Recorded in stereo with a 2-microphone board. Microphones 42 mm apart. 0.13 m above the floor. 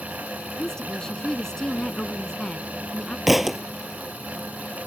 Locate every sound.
0.6 s a woman speaking: 15° left (ahead or behind)
3.3 s a thud: 5° right (ahead or behind)